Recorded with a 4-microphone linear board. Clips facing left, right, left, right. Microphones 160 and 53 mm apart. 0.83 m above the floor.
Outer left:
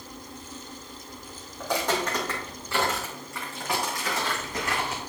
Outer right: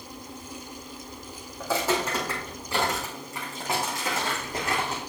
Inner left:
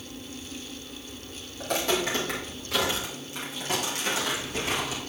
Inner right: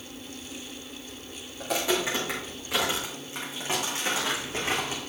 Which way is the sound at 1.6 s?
5° right (ahead or behind).